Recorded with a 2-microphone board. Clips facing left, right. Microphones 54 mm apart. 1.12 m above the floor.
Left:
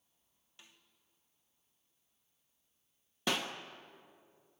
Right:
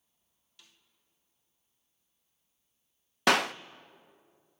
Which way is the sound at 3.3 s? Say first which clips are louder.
Right 11 dB; 75° right (ahead or behind).